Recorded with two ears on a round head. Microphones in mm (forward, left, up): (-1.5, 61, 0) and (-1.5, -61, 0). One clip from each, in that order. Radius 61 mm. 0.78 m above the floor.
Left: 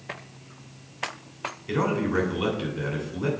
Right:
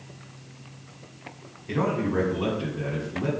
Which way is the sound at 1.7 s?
50° left (ahead or behind).